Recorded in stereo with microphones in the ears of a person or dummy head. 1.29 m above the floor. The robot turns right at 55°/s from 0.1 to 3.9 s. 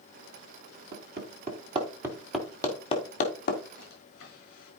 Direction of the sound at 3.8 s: 80° left.